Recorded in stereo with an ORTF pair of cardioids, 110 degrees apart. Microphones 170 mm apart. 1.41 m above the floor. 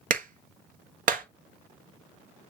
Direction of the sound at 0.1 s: 55° right.